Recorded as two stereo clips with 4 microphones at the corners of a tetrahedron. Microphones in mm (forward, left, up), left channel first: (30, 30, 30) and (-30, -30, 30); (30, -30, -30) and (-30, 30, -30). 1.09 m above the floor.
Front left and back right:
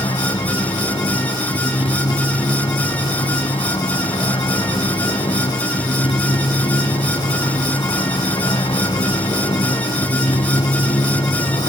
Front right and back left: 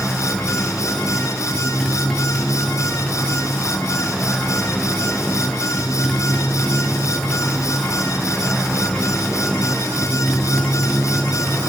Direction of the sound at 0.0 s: 45° left.